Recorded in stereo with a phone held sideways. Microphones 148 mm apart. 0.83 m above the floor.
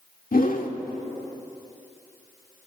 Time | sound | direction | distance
0.3 | a whoosh | 65° left (ahead or behind) | 1.6 m